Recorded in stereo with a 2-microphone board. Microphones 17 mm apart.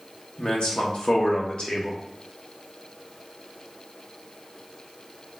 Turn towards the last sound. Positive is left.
turn(degrees=75)  # may be behind; listen again after turning